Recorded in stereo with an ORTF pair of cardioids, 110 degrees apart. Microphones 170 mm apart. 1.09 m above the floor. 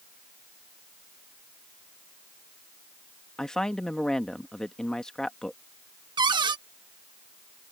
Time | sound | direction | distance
3.4 | a woman speaking | 5° left | ?
6.2 | a cupboard door | 25° right | ?